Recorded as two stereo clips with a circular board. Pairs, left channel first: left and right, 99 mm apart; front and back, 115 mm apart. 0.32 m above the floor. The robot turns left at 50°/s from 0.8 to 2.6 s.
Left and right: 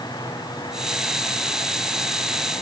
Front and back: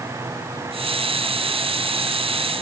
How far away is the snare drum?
I don't hear a snare drum.